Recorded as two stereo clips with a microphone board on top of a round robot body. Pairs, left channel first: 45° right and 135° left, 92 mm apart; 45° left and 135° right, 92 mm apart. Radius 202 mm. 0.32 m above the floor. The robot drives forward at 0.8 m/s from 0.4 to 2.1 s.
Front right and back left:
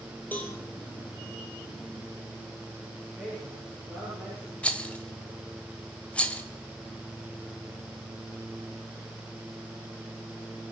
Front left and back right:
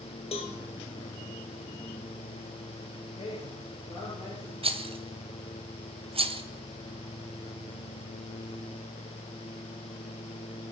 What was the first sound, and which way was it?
A cowbell, 30° left.